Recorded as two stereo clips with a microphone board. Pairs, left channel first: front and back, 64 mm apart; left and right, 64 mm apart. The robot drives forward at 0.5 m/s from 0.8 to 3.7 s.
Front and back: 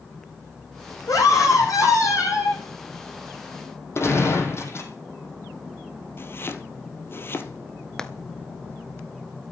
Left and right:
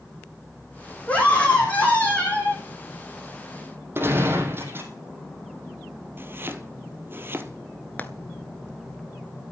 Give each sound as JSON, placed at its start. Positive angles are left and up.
{"t": 1.1, "sound": "a scream", "azimuth_deg": 25, "distance_m": 8.0}
{"t": 4.0, "sound": "a gunshot", "azimuth_deg": -40, "distance_m": 3.5}
{"t": 6.2, "sound": "chopping", "azimuth_deg": -40, "distance_m": 1.6}
{"t": 8.0, "sound": "frying", "azimuth_deg": 65, "distance_m": 1.2}